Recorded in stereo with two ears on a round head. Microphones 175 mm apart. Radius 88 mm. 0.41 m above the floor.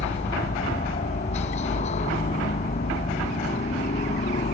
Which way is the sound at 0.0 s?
40° left (ahead or behind).